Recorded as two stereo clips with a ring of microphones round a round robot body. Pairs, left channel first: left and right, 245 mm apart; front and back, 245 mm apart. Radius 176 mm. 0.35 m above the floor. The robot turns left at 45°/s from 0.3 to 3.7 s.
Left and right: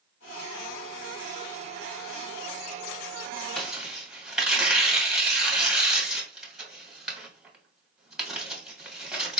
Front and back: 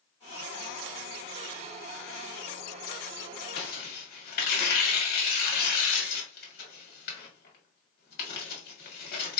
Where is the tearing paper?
5° left, 1.3 m; by 9.4 s 5° right, 1.3 m.